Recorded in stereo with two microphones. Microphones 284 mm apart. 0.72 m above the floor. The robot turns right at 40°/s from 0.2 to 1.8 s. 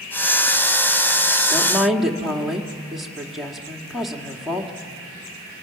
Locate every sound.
1.5 s a woman speaking: 10° left (ahead or behind), 1.7 m; by 4.7 s centre (ahead or behind), 1.7 m